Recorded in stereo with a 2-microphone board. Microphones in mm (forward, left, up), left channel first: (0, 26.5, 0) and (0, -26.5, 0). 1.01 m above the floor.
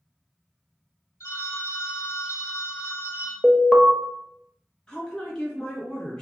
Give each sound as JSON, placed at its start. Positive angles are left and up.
{"t": 1.2, "sound": "a phone ringing", "side_deg": 75, "distance_m": 1.2}
{"t": 3.4, "sound": "an alarm", "side_deg": 0, "distance_m": 0.5}
{"t": 4.9, "sound": "a woman speaking", "side_deg": 15, "distance_m": 1.3}